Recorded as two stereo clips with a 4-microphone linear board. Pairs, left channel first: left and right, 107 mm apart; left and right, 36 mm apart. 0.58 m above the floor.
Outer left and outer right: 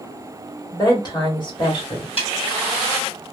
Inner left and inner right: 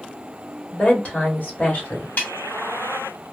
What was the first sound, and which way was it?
A woman speaking, 35° left (ahead or behind).